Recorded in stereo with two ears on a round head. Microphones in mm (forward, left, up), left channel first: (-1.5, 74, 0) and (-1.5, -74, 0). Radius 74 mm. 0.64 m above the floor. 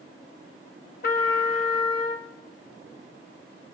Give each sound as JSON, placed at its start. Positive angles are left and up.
{"t": 1.0, "sound": "a trumpet", "side_deg": 55, "distance_m": 0.7}